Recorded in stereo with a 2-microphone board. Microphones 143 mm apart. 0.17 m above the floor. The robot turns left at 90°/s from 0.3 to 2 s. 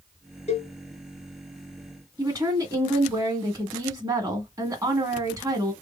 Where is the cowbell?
50° left (ahead or behind), 1.2 m; by 0.7 s 30° left (ahead or behind), 1.2 m.